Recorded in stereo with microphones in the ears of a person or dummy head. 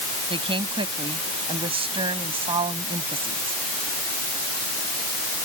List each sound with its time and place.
0.3 s a woman speaking: 35° right (ahead or behind)